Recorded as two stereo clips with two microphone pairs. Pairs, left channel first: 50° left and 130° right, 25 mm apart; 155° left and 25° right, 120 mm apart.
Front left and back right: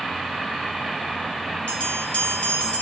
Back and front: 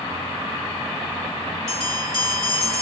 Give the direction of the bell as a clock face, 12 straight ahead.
10 o'clock.